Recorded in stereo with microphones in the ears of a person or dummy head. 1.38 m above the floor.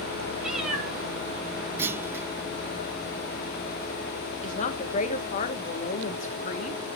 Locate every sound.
0.4 s a cat meowing: 5° right (ahead or behind), 2 m
1.8 s a clunk: 15° right (ahead or behind), 0.5 m
4.4 s a woman speaking: 40° left (ahead or behind), 1.2 m